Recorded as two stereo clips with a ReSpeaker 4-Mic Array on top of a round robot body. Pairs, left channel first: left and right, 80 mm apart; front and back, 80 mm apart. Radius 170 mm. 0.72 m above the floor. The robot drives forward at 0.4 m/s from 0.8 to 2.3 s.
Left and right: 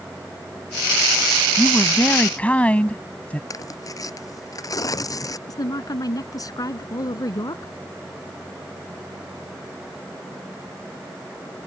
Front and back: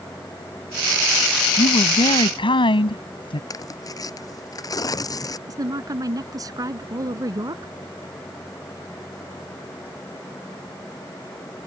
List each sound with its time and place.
1.6 s a woman speaking: 15° left
3.5 s tearing paper: 45° left
5.5 s a woman speaking: 135° left